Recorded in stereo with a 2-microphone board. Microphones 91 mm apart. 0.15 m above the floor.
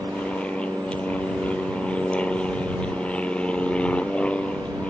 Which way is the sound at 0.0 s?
15° left (ahead or behind).